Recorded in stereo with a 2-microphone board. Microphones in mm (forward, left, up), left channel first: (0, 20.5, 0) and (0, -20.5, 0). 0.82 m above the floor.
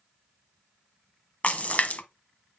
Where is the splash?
40° left (ahead or behind), 0.9 m.